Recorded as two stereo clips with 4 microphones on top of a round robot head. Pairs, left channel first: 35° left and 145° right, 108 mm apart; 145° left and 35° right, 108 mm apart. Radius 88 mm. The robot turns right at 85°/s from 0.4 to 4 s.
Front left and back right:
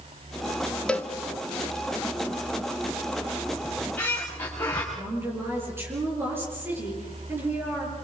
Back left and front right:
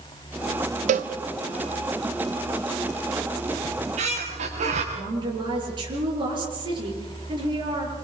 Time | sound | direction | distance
0.9 | a cowbell | 50° right | 0.6 m
3.6 | a squeak | 70° right | 5.5 m
4.9 | a woman speaking | 75° right | 8.5 m